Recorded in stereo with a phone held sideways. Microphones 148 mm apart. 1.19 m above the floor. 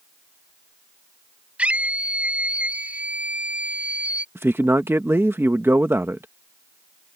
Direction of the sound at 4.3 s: 15° right (ahead or behind).